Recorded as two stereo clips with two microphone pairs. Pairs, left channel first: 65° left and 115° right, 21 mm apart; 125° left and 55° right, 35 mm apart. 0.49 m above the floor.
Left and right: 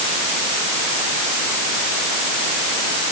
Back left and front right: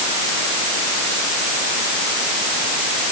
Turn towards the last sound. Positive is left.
No sound to turn to.